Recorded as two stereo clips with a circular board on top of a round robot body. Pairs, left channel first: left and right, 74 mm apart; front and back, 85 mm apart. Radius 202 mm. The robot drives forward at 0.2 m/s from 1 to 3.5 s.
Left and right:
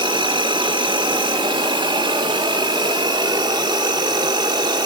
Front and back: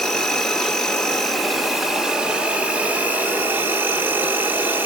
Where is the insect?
85° right, 1.0 m; by 4.9 s 110° right, 1.1 m.